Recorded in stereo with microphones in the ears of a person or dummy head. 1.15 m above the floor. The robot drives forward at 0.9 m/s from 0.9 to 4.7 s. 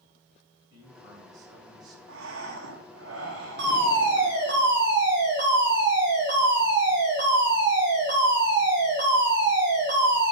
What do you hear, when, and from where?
0.7 s a man speaking: 25° right (ahead or behind), 7 m
2.1 s breathing: 85° right, 1.9 m; by 4.3 s 45° right (ahead or behind), 2.5 m
3.6 s a fire alarm: 60° right (ahead or behind), 3.5 m; by 10.3 s 55° right (ahead or behind), 3.5 m